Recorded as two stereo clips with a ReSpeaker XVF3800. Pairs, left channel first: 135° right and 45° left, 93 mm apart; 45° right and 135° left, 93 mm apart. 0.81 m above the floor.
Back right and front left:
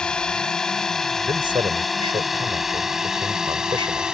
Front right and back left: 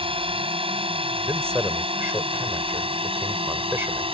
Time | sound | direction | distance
0.0 | a drone | 145° left | ?
1.2 | a man speaking | 70° left | ?